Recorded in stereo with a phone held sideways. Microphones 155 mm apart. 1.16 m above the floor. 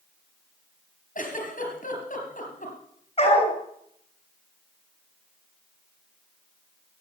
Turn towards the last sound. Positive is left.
turn(degrees=40)  # may be behind; listen again after turning